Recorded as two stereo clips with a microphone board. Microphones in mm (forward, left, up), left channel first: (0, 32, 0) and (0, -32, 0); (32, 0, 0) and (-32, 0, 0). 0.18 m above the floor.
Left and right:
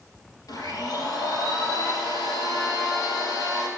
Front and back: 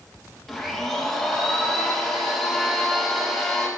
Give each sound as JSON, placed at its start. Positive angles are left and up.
{"t": 0.5, "sound": "a blender", "azimuth_deg": 85, "distance_m": 3.5}